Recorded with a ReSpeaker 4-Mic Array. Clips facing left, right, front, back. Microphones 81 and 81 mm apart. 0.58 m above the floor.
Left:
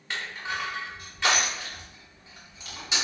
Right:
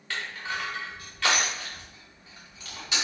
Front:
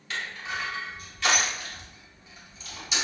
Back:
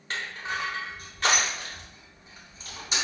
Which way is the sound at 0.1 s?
150° left.